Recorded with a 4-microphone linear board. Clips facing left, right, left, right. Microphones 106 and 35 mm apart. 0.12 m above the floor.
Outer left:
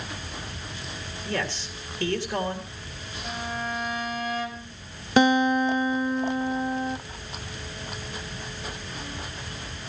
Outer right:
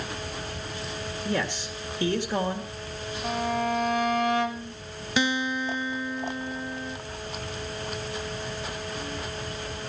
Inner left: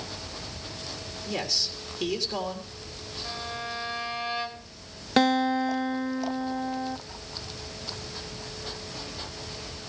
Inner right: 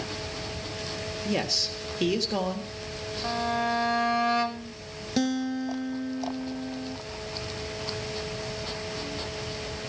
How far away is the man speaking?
About 3 m.